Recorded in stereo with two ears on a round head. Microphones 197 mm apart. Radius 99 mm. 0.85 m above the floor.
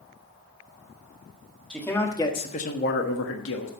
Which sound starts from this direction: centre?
A man speaking, at 1.7 s.